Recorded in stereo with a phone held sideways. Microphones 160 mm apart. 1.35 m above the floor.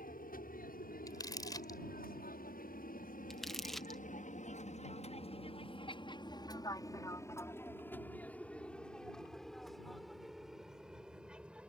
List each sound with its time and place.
0.0 s an aircraft: 65° left (ahead or behind); by 11.7 s 5° right (ahead or behind)
1.1 s crumpling: 25° left (ahead or behind)
3.3 s crumpling: centre (ahead or behind)